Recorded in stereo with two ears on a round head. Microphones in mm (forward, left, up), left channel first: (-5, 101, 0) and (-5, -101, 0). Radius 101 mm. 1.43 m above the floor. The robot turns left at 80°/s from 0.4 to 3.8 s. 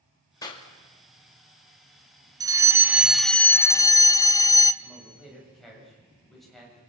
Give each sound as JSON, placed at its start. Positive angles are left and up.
{"t": 0.4, "sound": "a clap", "side_deg": 15, "distance_m": 2.5}
{"t": 2.4, "sound": "a fire alarm", "side_deg": -15, "distance_m": 0.8}
{"t": 4.8, "sound": "a man speaking", "side_deg": 0, "distance_m": 8.0}